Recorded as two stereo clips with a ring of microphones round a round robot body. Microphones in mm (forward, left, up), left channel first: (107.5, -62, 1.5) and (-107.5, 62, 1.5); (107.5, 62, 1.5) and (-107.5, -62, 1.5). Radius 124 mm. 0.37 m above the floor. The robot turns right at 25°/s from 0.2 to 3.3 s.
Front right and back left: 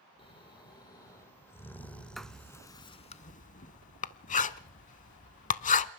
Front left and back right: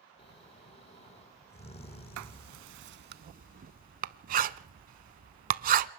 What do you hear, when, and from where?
0.2 s snoring: straight ahead, 1.0 m; by 2.7 s 65° left, 1.0 m
2.2 s writing: 120° right, 0.5 m; by 5.9 s 90° right, 0.5 m